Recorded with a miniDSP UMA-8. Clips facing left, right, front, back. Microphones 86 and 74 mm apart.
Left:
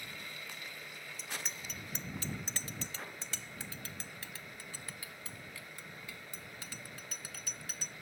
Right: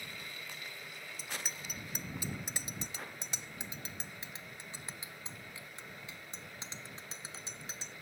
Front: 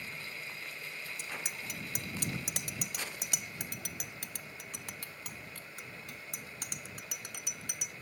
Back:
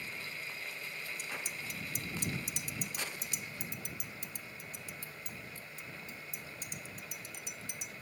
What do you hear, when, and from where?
1.2 s a bicycle bell: 5° right; by 7.9 s 25° right